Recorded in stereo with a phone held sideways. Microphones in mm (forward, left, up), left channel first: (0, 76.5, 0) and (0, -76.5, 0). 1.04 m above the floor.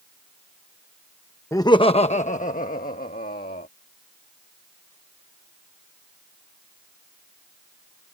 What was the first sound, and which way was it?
Laughter, 20° left (ahead or behind).